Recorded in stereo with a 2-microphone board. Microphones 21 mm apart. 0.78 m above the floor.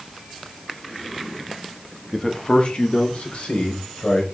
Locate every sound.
2.1 s a man speaking: 10° left (ahead or behind), 1.0 m; by 4.2 s 65° left (ahead or behind), 3.5 m